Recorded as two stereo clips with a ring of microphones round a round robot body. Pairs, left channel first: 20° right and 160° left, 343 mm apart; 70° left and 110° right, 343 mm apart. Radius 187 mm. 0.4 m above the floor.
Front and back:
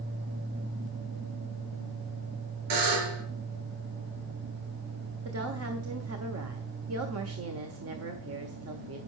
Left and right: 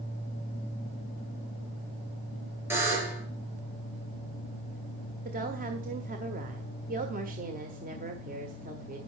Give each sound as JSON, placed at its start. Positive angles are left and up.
{"t": 2.7, "sound": "a buzzer", "azimuth_deg": 165, "distance_m": 3.5}
{"t": 5.2, "sound": "a woman speaking", "azimuth_deg": -170, "distance_m": 1.6}